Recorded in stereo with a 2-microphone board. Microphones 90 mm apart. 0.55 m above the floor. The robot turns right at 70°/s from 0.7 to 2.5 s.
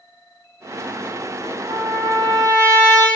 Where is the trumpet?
95° right, 2.5 m; by 3.1 s 35° right, 2.5 m.